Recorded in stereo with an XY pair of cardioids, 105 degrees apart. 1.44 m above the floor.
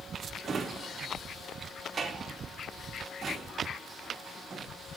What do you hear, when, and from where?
0.4 s a drawer: 40° right, 1.8 m